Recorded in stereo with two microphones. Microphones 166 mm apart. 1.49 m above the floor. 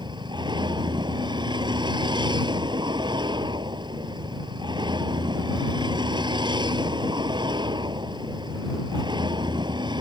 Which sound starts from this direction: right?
A vehicle, at 0.0 s.